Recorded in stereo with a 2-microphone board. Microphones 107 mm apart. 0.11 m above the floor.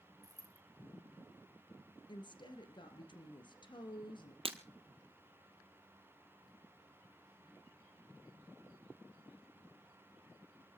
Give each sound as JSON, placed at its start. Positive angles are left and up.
{"t": 0.2, "sound": "a dropped coin", "side_deg": -30, "distance_m": 1.9}
{"t": 2.1, "sound": "a woman speaking", "side_deg": 45, "distance_m": 2.0}
{"t": 4.5, "sound": "breaking glass", "side_deg": -60, "distance_m": 1.2}